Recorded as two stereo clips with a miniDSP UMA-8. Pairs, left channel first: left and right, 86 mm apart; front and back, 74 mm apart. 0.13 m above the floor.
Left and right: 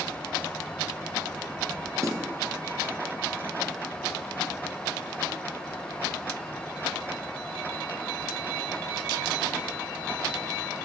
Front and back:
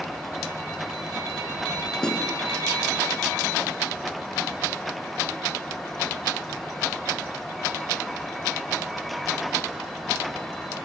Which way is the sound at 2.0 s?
75° right.